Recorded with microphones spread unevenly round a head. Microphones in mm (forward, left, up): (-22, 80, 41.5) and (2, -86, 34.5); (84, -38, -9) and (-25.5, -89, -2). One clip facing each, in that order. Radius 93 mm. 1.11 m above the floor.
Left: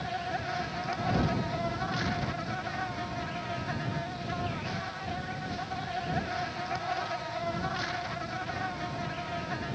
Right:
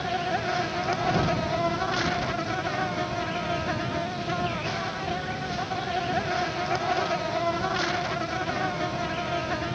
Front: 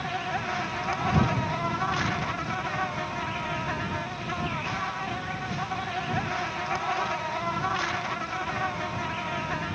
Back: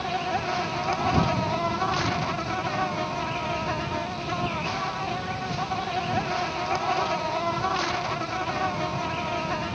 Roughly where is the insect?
Right.